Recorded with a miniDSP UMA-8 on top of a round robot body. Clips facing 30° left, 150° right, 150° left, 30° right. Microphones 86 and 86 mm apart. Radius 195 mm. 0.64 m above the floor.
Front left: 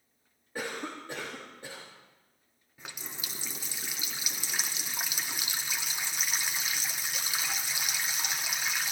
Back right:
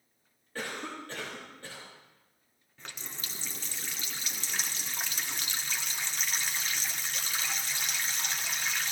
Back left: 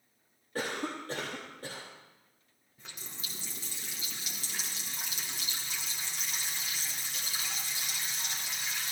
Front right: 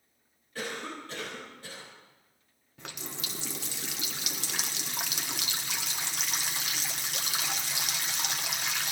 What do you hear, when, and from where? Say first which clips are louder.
0.6 s a cough: front left 1 dB, back left 2 dB; 105° left, 3 m
2.8 s a running tap: front left 1 dB, front right 7 dB; 50° right, 1.0 m